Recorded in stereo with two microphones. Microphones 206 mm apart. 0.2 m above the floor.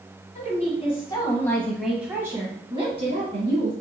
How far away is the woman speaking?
About 1.6 m.